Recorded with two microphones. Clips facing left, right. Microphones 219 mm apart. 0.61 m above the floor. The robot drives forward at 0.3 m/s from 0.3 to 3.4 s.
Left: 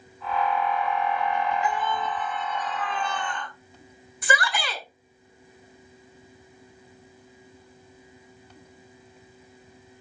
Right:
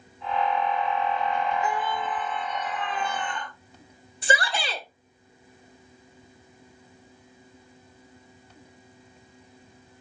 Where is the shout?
30° right (ahead or behind), 1.9 m.